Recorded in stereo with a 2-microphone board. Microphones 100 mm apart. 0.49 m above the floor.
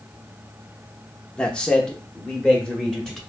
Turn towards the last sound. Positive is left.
turn(degrees=5)  # may be behind; listen again after turning